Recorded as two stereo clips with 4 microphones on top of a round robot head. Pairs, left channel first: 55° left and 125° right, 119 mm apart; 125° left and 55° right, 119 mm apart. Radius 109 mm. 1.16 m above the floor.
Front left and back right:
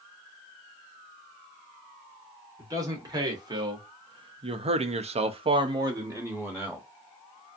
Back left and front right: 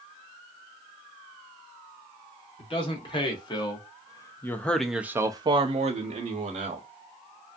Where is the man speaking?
170° left, 1.5 m; by 6.9 s 45° right, 1.0 m.